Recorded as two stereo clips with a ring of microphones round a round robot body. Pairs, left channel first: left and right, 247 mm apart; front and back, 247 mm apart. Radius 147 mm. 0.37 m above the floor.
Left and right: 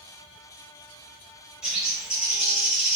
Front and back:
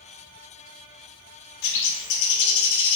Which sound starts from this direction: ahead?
A bird, at 1.6 s.